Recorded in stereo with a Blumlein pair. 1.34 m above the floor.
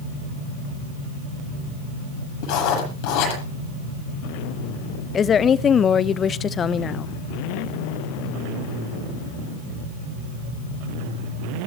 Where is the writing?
45° left, 7.5 m.